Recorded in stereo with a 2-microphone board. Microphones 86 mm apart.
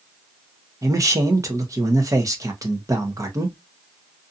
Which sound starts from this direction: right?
A man speaking, at 0.8 s.